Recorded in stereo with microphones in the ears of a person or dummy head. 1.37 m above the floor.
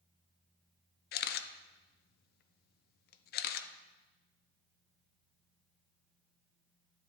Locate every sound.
1.1 s a camera shutter: 50° left (ahead or behind), 0.6 m